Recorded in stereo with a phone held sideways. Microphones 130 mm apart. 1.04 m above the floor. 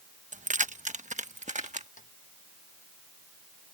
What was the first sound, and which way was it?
Keys jangling, 70° right (ahead or behind).